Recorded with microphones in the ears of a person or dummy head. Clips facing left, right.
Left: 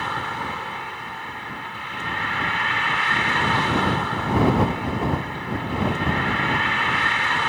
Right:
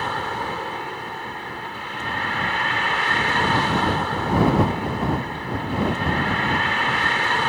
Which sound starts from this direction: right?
A vehicle, at 0.0 s.